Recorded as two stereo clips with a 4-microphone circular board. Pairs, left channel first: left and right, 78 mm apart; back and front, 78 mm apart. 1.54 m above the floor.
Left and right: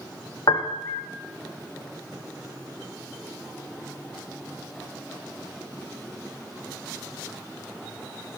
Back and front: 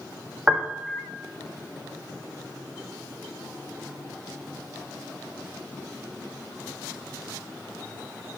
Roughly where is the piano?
Left.